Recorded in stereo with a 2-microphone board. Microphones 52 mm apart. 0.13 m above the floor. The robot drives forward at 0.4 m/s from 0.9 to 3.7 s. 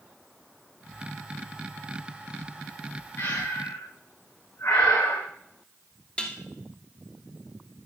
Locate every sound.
3.2 s breathing: 85° left, 4.5 m
6.2 s dishes clattering: 25° left (ahead or behind), 1.5 m